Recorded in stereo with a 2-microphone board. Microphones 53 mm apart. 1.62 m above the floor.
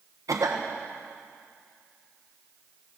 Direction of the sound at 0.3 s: 85° right.